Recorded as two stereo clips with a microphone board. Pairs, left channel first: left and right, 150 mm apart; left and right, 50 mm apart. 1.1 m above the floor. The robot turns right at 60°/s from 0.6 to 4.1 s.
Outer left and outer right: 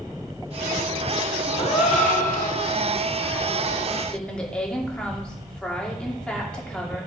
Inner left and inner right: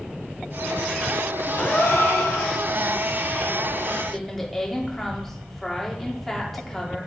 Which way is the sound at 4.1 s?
5° left (ahead or behind).